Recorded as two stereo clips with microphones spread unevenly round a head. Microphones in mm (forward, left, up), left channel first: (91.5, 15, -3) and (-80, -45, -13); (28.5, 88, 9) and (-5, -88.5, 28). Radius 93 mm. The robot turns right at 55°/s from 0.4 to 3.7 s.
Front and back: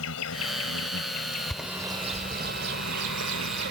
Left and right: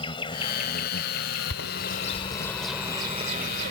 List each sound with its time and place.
0.0 s an insect: 15° left; by 3.7 s 165° right
1.5 s a bird: 105° left; by 3.7 s 135° right